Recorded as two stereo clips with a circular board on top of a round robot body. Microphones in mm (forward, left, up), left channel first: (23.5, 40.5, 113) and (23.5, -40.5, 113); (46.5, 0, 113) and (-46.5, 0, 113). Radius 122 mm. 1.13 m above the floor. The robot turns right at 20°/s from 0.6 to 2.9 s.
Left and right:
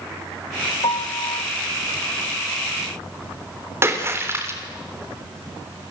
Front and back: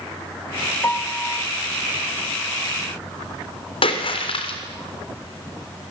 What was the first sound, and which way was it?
A piano, 65° left.